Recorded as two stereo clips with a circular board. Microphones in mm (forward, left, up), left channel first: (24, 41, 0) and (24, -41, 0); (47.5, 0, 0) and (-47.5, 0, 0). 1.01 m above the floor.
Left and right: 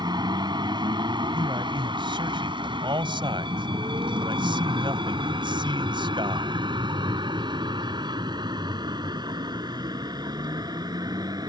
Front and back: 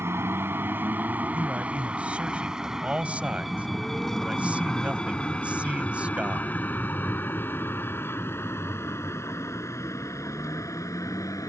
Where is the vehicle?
115° right; by 11.5 s 55° right.